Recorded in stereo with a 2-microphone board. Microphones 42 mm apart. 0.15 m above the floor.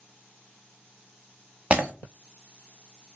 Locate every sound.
1.7 s breaking glass: 30° right (ahead or behind), 1.1 m